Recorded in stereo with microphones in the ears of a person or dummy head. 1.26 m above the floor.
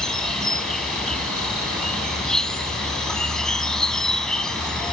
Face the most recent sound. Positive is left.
turn(degrees=0)  # may be behind; listen again after turning